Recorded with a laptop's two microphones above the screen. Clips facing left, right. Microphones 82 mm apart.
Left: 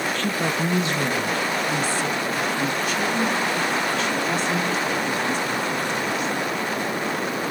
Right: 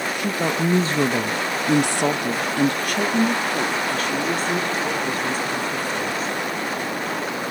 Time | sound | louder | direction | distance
0.1 | a woman speaking | right 1 dB | 15° right (ahead or behind) | 1.0 m